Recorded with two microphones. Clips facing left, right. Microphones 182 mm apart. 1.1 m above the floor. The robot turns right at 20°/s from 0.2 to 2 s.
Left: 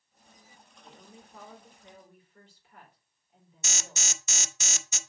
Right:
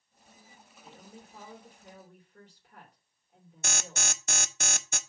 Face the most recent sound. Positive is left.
turn(degrees=-55)  # may be behind; listen again after turning